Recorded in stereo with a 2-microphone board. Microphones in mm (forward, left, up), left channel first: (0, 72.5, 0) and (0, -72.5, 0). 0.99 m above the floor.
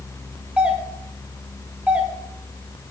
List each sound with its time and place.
0.6 s a doorbell: 10° right (ahead or behind), 1.9 m